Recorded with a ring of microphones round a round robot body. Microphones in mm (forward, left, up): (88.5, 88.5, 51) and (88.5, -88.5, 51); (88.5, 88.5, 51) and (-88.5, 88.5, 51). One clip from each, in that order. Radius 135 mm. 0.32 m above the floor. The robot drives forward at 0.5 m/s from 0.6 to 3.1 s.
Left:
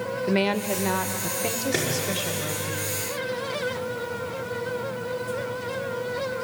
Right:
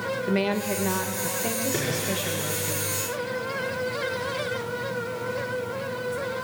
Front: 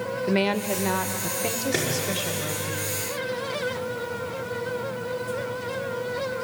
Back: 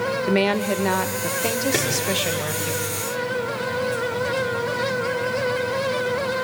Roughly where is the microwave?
Left.